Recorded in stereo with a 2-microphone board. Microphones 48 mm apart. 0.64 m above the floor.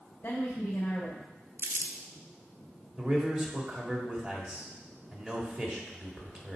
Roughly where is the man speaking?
Right.